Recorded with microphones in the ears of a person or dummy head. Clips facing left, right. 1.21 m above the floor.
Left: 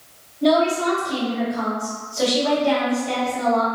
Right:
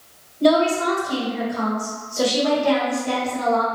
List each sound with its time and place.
0.4 s a woman speaking: 60° right (ahead or behind), 1.5 m